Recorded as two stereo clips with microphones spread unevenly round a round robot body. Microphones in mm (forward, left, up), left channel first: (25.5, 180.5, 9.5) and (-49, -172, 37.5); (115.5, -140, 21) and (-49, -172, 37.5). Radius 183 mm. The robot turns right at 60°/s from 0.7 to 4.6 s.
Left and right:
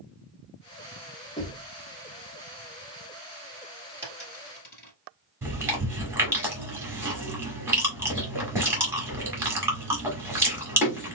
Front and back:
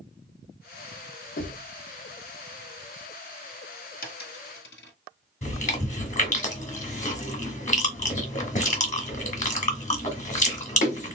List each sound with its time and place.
1.4 s knocking: straight ahead, 0.9 m; by 1.7 s 20° left, 0.9 m
4.0 s a dropped coin: 20° right, 1.6 m; by 4.9 s 15° left, 1.6 m
5.4 s chewing: 15° right, 1.8 m